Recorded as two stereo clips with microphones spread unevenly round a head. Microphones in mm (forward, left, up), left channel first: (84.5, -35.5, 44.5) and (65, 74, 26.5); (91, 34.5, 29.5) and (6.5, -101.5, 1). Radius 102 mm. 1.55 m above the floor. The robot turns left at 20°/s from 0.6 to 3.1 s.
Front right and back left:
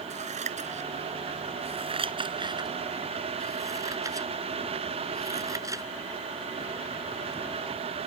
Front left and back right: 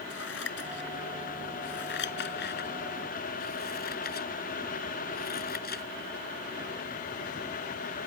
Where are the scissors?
90° left; by 5.8 s 40° left.